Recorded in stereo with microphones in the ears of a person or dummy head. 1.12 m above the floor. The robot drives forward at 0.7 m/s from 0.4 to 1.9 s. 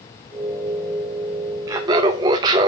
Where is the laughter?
25° right (ahead or behind), 0.9 m; by 2.7 s 30° right (ahead or behind), 0.7 m.